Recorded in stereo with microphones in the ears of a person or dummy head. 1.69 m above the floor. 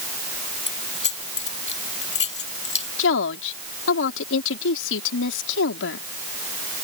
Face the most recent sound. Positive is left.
turn(degrees=75)  # may be behind; listen again after turning